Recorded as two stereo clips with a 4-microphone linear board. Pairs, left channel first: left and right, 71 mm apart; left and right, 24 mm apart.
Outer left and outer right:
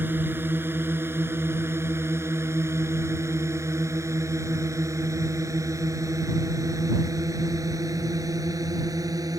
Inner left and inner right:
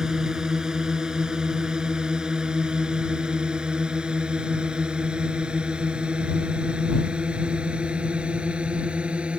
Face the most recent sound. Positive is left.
turn(degrees=-55)  # may be behind; listen again after turning